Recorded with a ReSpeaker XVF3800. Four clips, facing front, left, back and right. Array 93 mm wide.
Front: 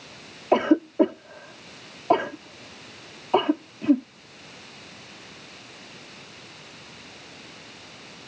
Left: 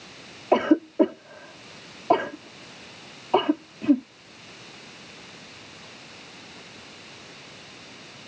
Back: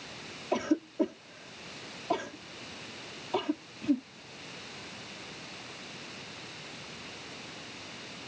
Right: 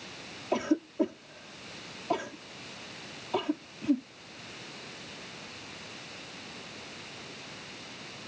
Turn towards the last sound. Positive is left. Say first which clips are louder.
# left 9 dB, front 10 dB
turn(degrees=45)